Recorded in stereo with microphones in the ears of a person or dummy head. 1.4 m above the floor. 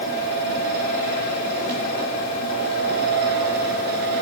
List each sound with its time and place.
0.0 s a fan: 60° right (ahead or behind), 3.5 m